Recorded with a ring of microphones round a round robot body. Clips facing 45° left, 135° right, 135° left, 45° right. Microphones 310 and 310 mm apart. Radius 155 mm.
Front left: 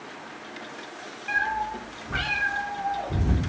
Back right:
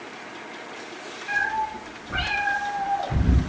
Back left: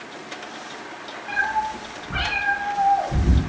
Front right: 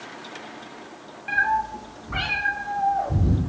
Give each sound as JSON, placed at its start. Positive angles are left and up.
{"t": 1.3, "sound": "a cat meowing", "azimuth_deg": -30, "distance_m": 1.2}